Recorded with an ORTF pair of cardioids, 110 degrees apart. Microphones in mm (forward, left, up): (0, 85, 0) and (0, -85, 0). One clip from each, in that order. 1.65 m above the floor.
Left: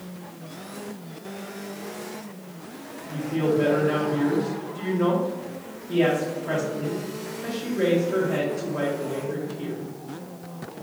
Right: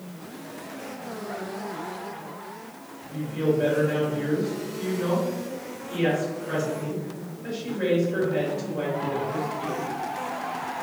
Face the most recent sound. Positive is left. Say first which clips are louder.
# left 1 dB
turn(degrees=70)